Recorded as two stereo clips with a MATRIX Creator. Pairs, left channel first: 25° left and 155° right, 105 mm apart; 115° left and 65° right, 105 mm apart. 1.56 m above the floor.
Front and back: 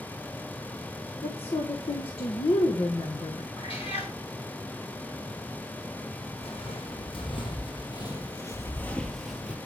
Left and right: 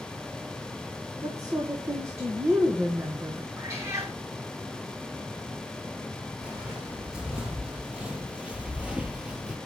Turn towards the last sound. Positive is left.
turn(degrees=-120)